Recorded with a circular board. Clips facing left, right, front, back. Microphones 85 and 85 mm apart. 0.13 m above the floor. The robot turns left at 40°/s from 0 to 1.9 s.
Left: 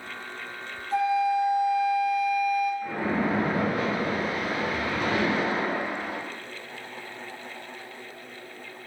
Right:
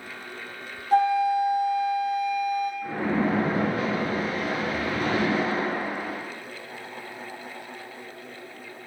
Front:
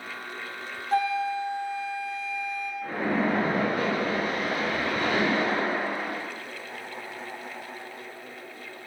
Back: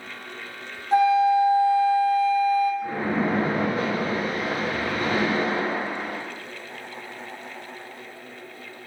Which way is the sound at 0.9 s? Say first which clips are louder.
Right 3 dB, back 8 dB; 110° right.